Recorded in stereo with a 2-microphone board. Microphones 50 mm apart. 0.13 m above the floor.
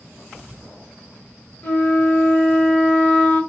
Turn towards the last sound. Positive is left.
turn(degrees=20)  # may be behind; listen again after turning